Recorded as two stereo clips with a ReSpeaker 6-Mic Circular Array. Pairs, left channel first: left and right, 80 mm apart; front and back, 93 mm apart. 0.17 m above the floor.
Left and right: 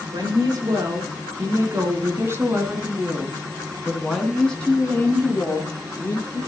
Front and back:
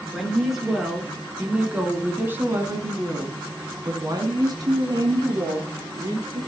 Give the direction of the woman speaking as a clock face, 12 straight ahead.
3 o'clock.